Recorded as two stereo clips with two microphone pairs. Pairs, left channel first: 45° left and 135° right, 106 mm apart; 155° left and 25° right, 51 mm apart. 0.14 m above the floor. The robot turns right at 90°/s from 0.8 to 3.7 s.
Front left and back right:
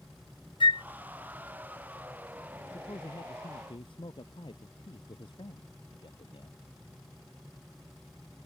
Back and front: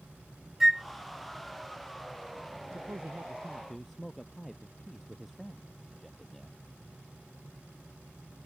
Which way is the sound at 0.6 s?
65° left.